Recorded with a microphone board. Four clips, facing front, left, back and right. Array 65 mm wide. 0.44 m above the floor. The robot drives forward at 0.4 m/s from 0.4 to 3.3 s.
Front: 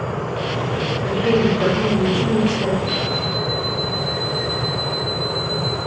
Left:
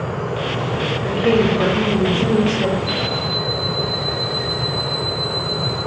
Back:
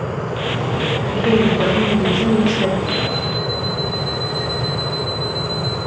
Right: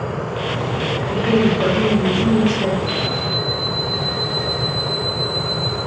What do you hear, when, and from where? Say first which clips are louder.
1.0 s a woman speaking: left 1 dB, back 1 dB; 100° left, 0.8 m; by 2.8 s 150° left, 1.1 m
2.9 s an alarm clock: even, back 1 dB; 95° left, 1.2 m; by 5.8 s 105° left, 1.2 m